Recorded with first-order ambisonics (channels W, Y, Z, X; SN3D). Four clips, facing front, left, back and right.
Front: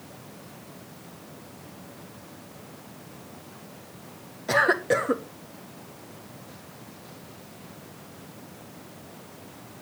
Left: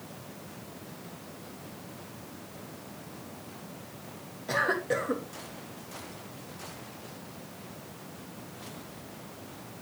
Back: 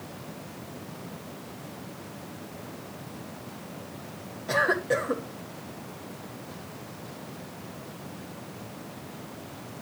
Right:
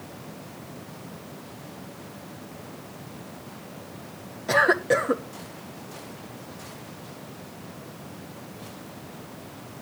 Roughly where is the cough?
Ahead right.